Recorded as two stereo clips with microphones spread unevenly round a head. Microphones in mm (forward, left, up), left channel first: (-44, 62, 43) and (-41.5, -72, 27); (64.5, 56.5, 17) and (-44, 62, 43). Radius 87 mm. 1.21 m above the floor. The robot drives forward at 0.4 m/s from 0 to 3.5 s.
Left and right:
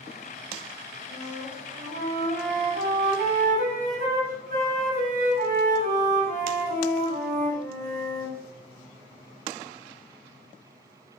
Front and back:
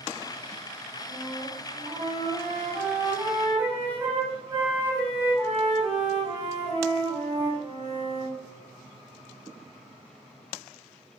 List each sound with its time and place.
1.1 s a flute: 100° right, 7 m; by 8.4 s 105° right, 7 m